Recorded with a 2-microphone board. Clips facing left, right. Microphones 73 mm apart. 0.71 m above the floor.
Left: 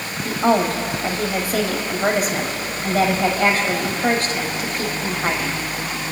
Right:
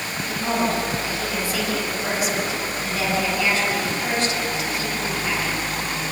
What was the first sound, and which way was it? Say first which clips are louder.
A woman speaking: left 6 dB; 45° left (ahead or behind).